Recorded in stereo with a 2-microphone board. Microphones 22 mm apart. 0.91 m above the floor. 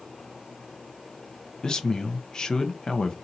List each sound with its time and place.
1.6 s a man speaking: 30° left (ahead or behind), 0.5 m